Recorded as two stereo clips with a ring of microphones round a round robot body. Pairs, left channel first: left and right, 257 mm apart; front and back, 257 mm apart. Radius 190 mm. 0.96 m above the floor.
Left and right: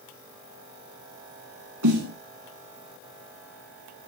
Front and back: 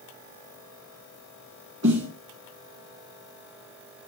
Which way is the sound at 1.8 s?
120° right.